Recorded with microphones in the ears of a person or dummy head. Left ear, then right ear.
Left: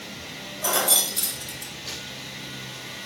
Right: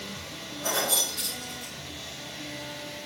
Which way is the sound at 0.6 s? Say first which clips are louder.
Left 4 dB; 70° left (ahead or behind).